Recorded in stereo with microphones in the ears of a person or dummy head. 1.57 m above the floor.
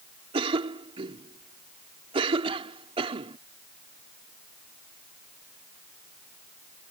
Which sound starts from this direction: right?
A cough, at 0.3 s.